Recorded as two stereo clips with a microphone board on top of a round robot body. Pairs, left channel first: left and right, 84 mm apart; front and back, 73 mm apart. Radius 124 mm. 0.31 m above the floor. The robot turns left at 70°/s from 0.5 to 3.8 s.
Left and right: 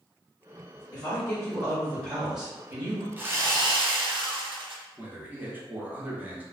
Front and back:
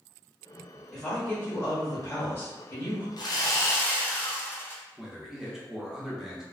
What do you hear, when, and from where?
0.9 s a woman speaking: 85° left, 1.4 m; by 3.1 s 65° right, 1.4 m
3.2 s sawing: 20° right, 0.7 m; by 4.8 s 65° right, 0.7 m
5.0 s a man speaking: 110° right, 0.8 m